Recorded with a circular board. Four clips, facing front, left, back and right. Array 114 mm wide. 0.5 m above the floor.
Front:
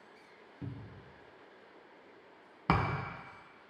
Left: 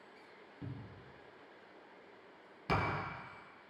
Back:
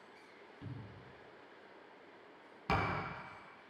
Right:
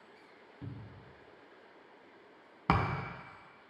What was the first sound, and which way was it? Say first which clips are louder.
A cupboard door: even, front 5 dB; 5° right.